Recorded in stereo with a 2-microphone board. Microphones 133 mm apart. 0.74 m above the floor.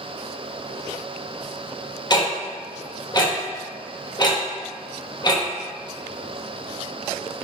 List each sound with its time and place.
2.1 s ticking: 30° left (ahead or behind), 0.7 m